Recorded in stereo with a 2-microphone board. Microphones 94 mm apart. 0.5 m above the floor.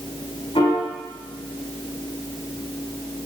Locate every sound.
0.6 s a piano: 70° left (ahead or behind), 3.5 m